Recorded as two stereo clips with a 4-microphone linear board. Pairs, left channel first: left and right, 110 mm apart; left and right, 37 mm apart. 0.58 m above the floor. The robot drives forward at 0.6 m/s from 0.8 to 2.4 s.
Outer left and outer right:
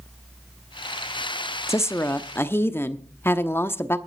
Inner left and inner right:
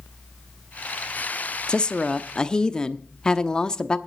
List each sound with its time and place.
1.7 s a woman speaking: 25° left (ahead or behind), 0.7 m; by 4.0 s 20° left (ahead or behind), 0.8 m